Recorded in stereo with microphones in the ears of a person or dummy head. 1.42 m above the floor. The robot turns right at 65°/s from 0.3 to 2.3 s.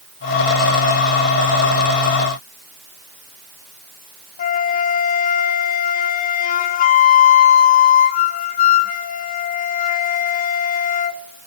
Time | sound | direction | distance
4.4 | a flute | 45° left (ahead or behind) | 1.0 m